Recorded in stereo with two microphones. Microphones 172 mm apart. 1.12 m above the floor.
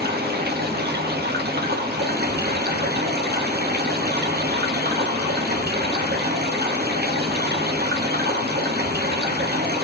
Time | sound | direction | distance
0.0 | running water | 70° right (ahead or behind) | 1.1 m